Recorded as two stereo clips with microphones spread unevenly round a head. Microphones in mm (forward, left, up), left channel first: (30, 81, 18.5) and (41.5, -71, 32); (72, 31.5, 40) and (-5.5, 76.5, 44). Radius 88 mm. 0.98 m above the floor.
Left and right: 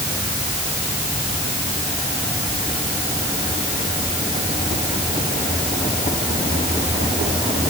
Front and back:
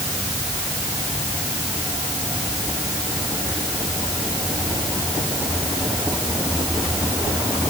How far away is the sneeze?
No sneeze in this recording.